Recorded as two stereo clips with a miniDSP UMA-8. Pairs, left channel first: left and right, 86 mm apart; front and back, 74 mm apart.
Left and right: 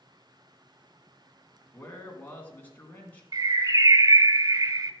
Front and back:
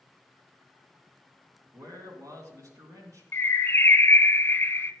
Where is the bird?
55° right, 0.6 m.